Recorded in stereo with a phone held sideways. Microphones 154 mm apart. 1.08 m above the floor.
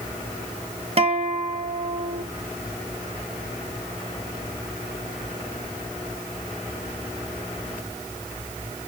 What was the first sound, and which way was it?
A guitar, 40° right (ahead or behind).